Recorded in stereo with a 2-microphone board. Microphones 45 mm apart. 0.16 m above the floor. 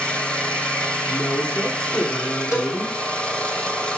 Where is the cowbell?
70° left (ahead or behind), 4.5 m.